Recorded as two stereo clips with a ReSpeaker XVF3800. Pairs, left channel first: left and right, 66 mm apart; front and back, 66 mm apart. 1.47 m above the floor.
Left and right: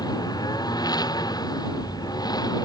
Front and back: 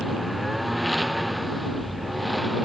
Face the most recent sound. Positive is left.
turn(degrees=90)